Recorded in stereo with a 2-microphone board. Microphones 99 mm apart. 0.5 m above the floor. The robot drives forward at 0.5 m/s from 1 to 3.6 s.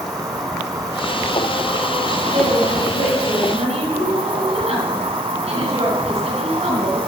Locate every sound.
0.0 s an insect: 35° right (ahead or behind), 1.3 m; by 7.1 s 65° right (ahead or behind), 0.8 m
2.3 s a woman speaking: 80° right, 5.5 m